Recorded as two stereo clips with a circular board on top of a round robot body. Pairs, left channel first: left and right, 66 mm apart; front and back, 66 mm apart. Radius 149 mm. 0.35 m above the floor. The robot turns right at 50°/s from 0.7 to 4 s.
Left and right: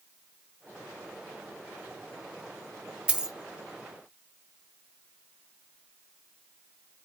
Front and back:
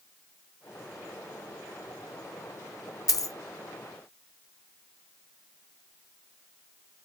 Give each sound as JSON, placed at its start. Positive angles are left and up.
{"t": 3.1, "sound": "a dropped coin", "azimuth_deg": -20, "distance_m": 0.8}